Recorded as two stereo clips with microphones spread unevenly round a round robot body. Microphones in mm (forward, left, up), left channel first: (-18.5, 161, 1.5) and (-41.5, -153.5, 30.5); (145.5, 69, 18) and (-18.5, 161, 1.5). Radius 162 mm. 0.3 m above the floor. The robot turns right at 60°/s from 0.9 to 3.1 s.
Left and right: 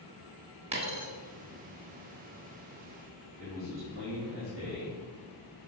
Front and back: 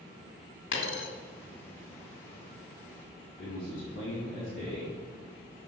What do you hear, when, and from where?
0.7 s a dropped coin: 20° right, 1.2 m; by 1.1 s 10° right, 1.2 m
3.4 s a man speaking: 40° right, 2.5 m